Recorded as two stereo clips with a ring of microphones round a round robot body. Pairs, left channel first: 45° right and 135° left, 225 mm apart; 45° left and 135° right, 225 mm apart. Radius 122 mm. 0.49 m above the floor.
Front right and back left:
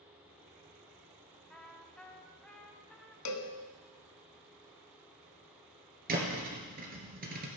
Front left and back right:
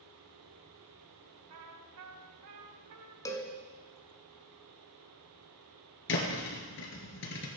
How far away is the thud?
About 2 m.